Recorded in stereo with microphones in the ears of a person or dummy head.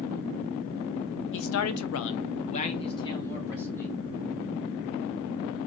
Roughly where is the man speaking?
Left.